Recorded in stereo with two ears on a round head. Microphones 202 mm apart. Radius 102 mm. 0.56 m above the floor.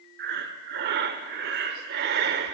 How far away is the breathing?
About 0.5 m.